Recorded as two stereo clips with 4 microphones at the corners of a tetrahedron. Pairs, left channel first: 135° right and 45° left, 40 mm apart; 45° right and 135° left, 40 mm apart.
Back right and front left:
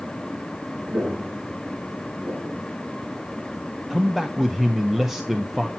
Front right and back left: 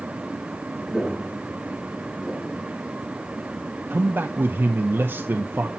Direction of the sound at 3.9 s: 130° left.